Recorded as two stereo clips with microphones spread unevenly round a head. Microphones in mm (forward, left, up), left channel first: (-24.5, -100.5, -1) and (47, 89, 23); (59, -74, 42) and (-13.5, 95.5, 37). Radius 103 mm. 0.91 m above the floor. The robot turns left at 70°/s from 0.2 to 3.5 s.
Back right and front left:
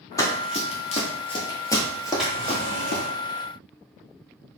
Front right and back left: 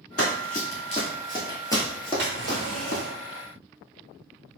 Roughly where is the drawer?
Behind left.